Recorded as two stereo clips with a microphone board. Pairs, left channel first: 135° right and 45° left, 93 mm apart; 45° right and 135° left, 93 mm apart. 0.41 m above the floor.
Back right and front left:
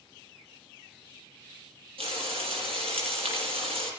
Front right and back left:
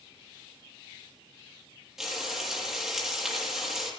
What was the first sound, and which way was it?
Frying, 50° left.